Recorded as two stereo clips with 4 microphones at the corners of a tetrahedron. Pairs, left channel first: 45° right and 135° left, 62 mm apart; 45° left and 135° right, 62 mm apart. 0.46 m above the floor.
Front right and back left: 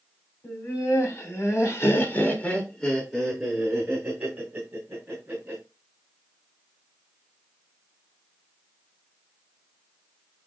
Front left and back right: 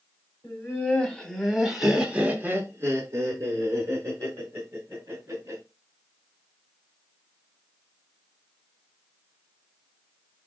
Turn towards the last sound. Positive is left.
turn(degrees=-170)